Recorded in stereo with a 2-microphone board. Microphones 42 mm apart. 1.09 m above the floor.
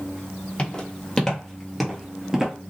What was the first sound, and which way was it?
Footsteps, 25° left (ahead or behind).